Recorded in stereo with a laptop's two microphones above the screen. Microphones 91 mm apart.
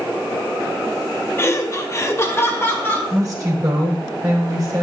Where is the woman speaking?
35° right (ahead or behind), 3.5 m.